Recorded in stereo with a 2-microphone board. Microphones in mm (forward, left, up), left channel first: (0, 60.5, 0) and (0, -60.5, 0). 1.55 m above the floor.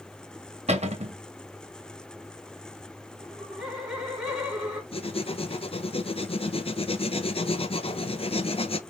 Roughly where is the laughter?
Centre.